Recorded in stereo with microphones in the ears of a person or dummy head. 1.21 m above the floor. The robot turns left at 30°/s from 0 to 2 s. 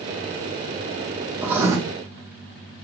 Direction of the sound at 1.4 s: 15° right (ahead or behind).